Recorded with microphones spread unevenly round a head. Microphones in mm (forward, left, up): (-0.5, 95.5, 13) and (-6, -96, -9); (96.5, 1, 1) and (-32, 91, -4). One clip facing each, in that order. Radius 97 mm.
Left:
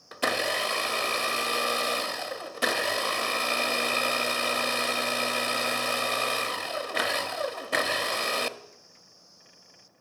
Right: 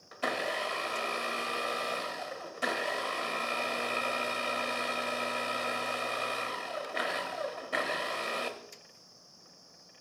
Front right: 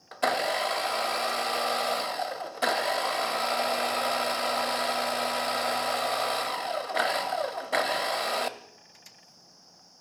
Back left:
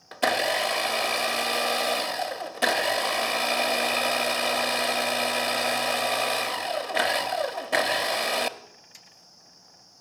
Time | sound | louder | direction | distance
0.1 | a blender | left 5 dB, back left 2 dB | 80° left | 0.7 m